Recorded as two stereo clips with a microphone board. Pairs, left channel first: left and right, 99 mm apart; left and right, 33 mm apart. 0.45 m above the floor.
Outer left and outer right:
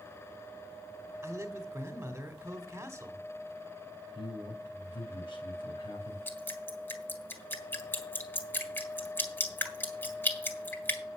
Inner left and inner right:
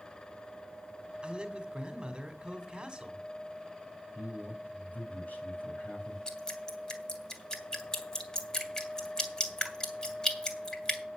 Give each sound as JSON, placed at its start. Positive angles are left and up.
{"t": 1.2, "sound": "a man speaking", "side_deg": -25, "distance_m": 2.5}
{"t": 4.2, "sound": "a man speaking", "side_deg": 60, "distance_m": 3.5}
{"t": 6.3, "sound": "dripping", "side_deg": 25, "distance_m": 2.0}